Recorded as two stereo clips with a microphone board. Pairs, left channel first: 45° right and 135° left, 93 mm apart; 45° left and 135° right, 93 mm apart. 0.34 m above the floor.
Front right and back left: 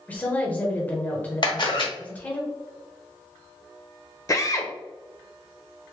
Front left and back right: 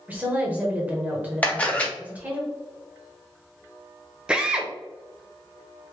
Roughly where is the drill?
Ahead right.